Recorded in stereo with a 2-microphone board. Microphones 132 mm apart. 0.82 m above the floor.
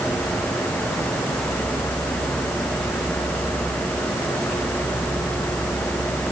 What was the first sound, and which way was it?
Only background noise.